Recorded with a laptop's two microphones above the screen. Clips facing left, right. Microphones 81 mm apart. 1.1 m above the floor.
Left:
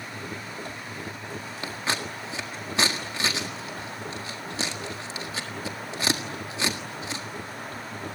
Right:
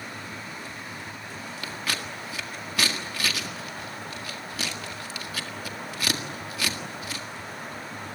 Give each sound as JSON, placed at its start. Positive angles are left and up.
{"t": 0.0, "sound": "a machine running", "side_deg": 55, "distance_m": 0.9}
{"t": 1.6, "sound": "scissors", "side_deg": 25, "distance_m": 1.7}